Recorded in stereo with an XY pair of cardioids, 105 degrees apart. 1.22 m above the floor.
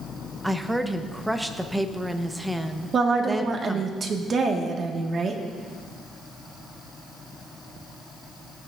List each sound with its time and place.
0.4 s a woman speaking: 10° right, 0.9 m
2.9 s a woman speaking: 45° right, 1.5 m